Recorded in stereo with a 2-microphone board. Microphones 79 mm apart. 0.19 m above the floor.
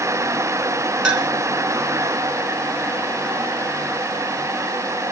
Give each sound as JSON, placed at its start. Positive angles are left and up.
{"t": 1.0, "sound": "a clink", "side_deg": -10, "distance_m": 2.0}